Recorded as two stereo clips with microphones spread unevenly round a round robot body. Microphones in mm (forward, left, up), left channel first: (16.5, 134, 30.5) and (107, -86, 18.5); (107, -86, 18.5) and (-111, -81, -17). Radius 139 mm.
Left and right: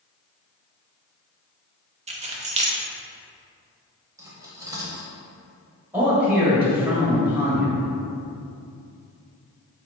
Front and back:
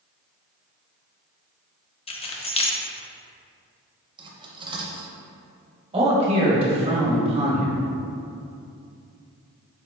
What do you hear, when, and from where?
2.1 s keys jangling: 55° right, 0.6 m
4.2 s cutlery clinking: 135° right, 0.6 m
5.9 s a man speaking: 145° right, 1.2 m